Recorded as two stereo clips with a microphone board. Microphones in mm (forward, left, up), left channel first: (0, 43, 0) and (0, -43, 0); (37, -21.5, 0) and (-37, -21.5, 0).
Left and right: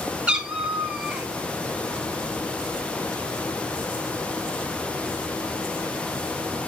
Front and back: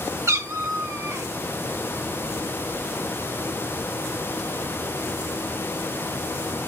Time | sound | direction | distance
0.3 | a cat meowing | 165° right | 0.9 m